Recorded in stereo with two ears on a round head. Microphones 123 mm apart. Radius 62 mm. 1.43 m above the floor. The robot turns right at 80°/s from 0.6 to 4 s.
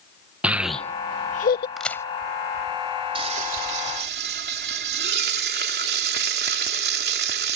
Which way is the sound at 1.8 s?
Centre (ahead or behind).